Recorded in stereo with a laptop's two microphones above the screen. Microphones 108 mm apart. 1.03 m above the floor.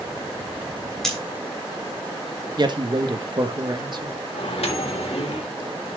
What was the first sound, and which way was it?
Scissors, 5° left (ahead or behind).